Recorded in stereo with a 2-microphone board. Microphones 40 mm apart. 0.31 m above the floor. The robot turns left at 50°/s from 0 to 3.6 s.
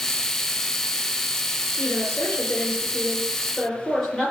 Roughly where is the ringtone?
I don't hear a ringtone.